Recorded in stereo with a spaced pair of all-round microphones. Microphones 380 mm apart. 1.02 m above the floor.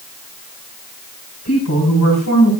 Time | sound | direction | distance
1.4 | a woman speaking | 40° left (ahead or behind) | 8.5 m